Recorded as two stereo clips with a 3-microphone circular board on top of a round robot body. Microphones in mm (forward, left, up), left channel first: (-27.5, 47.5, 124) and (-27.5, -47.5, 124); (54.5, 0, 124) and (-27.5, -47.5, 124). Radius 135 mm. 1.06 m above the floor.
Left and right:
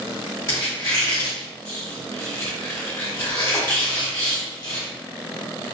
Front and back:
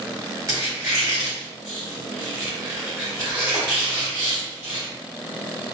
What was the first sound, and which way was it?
A squeak, 145° left.